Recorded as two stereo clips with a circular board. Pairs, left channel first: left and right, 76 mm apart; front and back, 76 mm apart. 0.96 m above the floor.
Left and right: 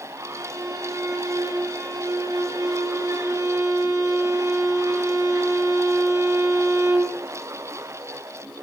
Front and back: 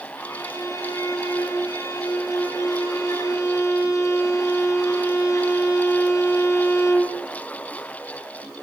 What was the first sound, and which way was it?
A violin, 45° right.